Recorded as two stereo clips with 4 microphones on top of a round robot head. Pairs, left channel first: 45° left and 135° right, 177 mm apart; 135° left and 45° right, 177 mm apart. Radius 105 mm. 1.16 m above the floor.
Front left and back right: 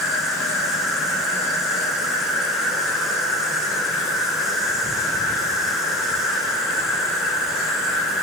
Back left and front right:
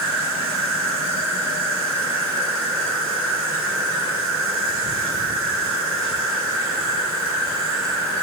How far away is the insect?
About 2.5 m.